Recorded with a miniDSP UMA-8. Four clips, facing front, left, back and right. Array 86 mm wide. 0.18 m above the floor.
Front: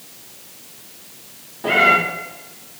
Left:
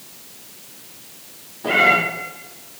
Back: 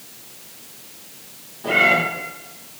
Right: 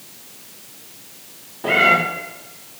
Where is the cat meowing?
50° right, 6 m.